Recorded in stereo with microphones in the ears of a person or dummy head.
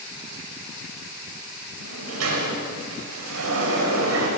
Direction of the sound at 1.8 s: 90° right.